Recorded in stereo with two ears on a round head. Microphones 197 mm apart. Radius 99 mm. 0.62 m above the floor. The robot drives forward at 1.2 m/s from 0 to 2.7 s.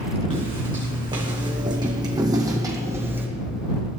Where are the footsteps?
25° right (ahead or behind), 3 m; by 3.3 s 10° right (ahead or behind), 2 m.